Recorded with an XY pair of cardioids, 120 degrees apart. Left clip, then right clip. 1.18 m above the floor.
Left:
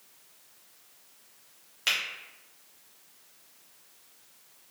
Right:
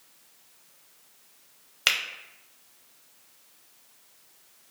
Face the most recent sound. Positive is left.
turn(degrees=-55)